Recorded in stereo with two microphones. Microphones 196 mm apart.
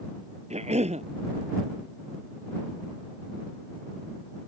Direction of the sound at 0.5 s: 35° right (ahead or behind).